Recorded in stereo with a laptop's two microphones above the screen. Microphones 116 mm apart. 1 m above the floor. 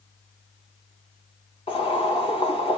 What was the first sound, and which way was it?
Boiling, 55° left (ahead or behind).